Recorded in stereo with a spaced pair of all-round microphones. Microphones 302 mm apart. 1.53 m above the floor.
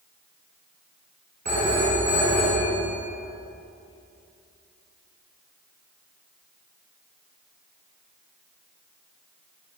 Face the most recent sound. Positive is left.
turn(degrees=-65)  # may be behind; listen again after turning